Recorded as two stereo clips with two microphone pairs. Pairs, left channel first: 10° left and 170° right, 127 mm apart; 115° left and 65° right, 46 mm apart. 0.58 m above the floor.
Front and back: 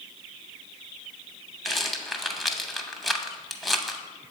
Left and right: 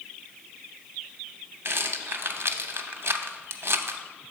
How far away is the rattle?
About 0.6 m.